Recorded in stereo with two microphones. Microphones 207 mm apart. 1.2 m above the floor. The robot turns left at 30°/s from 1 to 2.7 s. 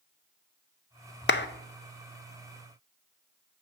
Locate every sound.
1.3 s a clap: 60° left (ahead or behind), 0.5 m